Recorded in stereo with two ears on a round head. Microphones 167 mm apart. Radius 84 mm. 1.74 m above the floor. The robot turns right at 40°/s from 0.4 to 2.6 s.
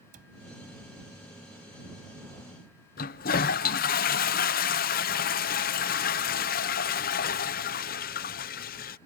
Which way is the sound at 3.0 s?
50° left (ahead or behind).